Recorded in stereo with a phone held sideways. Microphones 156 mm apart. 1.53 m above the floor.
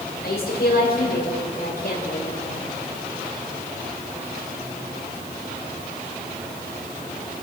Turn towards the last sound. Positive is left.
turn(degrees=75)  # may be behind; listen again after turning